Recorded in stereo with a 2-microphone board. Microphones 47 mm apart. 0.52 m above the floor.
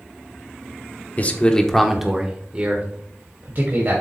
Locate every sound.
1.2 s a man speaking: 35° left (ahead or behind), 1.0 m; by 4.0 s 50° right (ahead or behind), 2.5 m